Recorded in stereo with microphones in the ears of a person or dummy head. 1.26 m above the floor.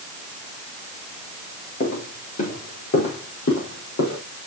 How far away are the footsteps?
About 4.5 m.